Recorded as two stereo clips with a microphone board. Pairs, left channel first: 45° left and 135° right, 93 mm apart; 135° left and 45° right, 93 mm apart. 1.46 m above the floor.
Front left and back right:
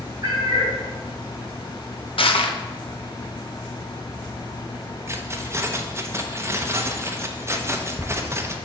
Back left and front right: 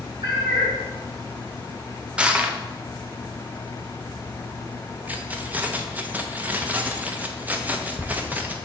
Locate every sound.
0.2 s a cat meowing: 85° right, 3 m
2.2 s crushing: 35° left, 0.6 m
5.1 s keys jangling: 100° right, 0.6 m